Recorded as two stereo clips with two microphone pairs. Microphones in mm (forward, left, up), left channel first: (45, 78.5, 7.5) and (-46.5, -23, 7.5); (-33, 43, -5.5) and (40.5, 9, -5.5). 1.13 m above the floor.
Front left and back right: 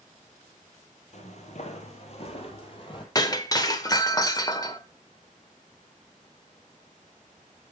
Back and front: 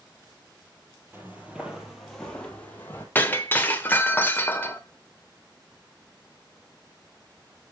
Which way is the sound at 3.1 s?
100° left.